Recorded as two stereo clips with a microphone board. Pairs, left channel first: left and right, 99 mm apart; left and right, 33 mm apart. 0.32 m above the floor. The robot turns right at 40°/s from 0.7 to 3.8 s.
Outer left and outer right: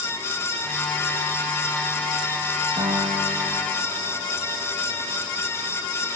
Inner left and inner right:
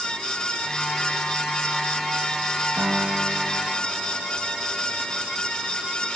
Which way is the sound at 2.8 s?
100° right.